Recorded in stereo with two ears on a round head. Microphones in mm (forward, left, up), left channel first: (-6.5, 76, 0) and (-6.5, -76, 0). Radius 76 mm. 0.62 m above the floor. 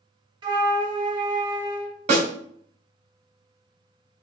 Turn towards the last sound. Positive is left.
turn(degrees=-45)  # may be behind; listen again after turning